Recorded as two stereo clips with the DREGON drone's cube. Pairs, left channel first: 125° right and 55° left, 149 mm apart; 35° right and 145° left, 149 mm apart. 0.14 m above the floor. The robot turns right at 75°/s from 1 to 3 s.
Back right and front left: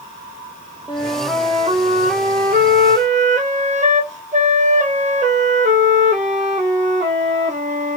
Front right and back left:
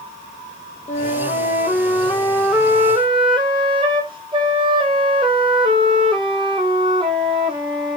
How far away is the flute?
About 0.6 m.